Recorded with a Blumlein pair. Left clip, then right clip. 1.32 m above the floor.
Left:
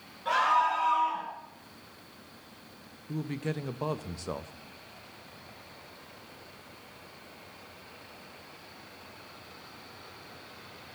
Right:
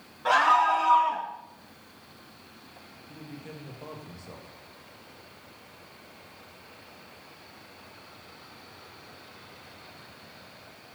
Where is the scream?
40° right, 4 m; by 1.3 s 55° right, 3 m.